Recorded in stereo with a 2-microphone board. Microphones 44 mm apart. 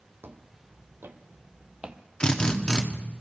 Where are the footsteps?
60° right (ahead or behind), 1.7 m; by 2.0 s 15° right (ahead or behind), 1.1 m.